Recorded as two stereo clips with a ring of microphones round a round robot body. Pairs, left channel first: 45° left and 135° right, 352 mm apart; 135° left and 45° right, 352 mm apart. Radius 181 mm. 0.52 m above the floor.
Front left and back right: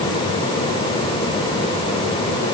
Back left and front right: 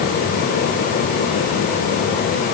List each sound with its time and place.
Only background noise.